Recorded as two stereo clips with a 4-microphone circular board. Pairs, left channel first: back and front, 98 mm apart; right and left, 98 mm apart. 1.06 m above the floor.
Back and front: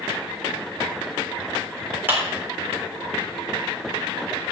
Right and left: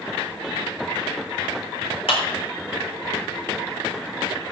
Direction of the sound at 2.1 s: 70° right.